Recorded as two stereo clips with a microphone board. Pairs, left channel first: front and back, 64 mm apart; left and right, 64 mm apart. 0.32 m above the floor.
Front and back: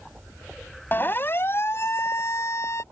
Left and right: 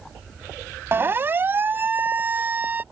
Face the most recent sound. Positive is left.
turn(degrees=-35)